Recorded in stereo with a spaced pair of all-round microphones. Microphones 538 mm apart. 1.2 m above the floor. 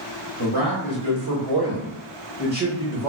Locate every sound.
0.4 s a man speaking: 65° right (ahead or behind), 1.4 m; by 3.1 s centre (ahead or behind), 1.0 m